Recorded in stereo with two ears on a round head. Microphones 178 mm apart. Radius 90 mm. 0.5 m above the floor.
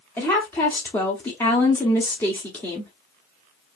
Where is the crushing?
No crushing in this recording.